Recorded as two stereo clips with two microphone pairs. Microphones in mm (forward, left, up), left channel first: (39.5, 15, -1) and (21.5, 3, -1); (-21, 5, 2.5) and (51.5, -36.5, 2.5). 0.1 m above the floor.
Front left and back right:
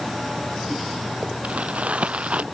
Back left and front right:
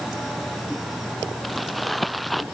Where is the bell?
I don't hear a bell.